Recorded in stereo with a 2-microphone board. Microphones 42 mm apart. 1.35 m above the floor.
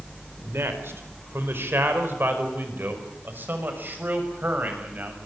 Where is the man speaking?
75° right (ahead or behind), 4 m; by 5.2 s 45° right (ahead or behind), 6.5 m.